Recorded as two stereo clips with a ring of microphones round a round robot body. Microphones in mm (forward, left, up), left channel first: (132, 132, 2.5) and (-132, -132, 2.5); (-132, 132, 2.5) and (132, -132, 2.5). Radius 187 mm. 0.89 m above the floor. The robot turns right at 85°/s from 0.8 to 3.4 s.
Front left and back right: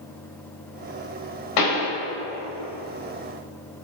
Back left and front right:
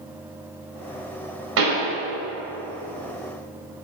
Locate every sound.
1.6 s a pop: 15° left, 4.5 m; by 1.9 s 40° left, 4.5 m